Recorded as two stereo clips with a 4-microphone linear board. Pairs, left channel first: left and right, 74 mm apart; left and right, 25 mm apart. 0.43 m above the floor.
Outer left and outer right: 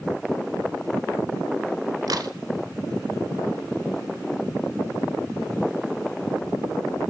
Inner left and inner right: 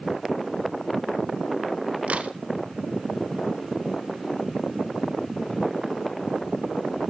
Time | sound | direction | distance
2.1 | a crack | 60° right (ahead or behind) | 0.7 m